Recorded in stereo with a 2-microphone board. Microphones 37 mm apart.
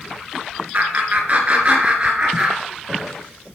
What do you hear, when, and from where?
0.7 s laughter: 50° right (ahead or behind), 2.5 m; by 3.1 s 25° right (ahead or behind), 3 m